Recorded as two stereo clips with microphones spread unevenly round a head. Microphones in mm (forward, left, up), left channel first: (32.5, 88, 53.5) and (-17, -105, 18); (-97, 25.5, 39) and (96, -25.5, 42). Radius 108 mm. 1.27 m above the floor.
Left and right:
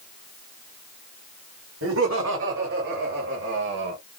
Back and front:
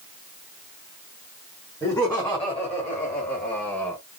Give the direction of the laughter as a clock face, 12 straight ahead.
4 o'clock.